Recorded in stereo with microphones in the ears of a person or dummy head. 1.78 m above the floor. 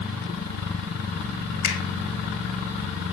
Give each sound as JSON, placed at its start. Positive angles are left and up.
{"t": 1.6, "sound": "a finger snap", "side_deg": 60, "distance_m": 3.0}